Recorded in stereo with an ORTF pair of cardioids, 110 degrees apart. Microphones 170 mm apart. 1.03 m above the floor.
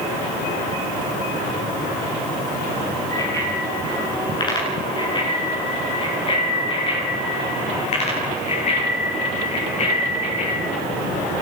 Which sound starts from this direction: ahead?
A bicycle bell, at 3.1 s.